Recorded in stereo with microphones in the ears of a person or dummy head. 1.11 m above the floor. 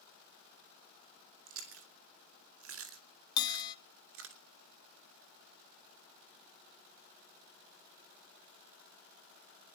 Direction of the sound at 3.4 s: 25° left (ahead or behind).